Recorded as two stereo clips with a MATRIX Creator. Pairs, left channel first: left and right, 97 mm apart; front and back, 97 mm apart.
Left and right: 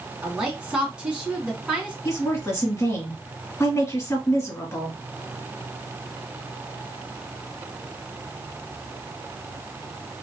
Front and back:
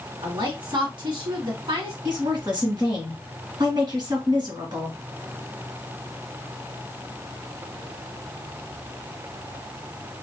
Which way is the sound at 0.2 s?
170° right.